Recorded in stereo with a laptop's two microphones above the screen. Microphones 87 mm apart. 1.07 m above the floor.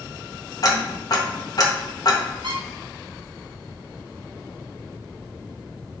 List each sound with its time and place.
0.6 s ticking: 45° left (ahead or behind), 0.8 m
2.4 s a squeak: 60° right (ahead or behind), 0.7 m